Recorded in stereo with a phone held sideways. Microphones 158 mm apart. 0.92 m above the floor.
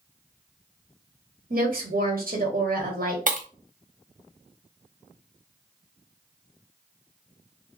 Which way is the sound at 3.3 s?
55° right (ahead or behind).